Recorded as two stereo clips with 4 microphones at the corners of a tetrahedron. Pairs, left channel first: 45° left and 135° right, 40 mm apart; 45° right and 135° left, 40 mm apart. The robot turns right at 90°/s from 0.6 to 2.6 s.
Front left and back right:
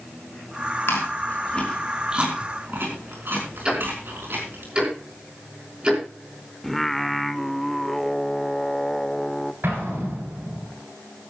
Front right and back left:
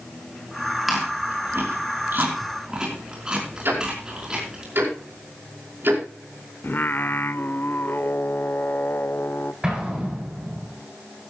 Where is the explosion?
150° right, 8.5 m.